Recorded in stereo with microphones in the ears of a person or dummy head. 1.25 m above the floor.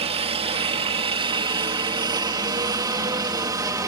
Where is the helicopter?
35° right (ahead or behind); by 3.9 s 20° right (ahead or behind).